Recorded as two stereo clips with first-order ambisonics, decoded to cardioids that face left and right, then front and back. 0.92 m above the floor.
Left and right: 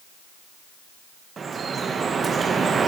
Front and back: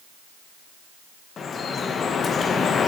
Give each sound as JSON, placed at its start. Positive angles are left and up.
{"t": 1.4, "sound": "dripping", "azimuth_deg": -40, "distance_m": 0.5}